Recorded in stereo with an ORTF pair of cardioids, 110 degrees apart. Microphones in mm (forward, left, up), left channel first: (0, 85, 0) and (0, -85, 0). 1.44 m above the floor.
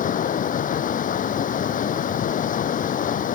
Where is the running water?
50° left.